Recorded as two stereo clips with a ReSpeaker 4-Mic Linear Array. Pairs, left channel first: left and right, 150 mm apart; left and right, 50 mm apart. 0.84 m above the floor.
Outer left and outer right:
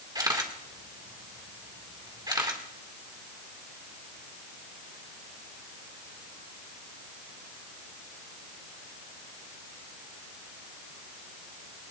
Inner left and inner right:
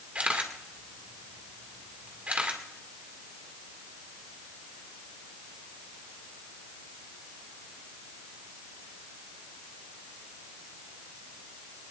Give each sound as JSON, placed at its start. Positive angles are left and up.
{"t": 0.1, "sound": "a camera shutter", "side_deg": -30, "distance_m": 2.0}